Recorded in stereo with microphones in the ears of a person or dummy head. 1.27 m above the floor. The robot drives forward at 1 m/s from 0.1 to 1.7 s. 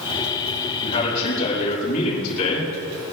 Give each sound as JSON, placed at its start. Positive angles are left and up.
{"t": 0.8, "sound": "a man speaking", "side_deg": 50, "distance_m": 8.0}